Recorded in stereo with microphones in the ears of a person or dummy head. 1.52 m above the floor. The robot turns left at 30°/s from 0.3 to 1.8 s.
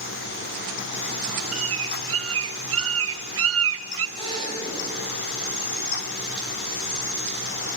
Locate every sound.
1.5 s a bird: 65° right (ahead or behind), 0.6 m
4.2 s a drill: 25° left (ahead or behind), 10 m